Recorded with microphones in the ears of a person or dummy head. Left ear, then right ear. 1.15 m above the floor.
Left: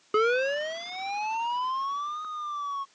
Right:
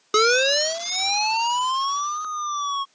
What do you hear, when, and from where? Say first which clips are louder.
0.1 s a siren: right 7 dB; 80° right; by 2.9 s 75° right (ahead or behind)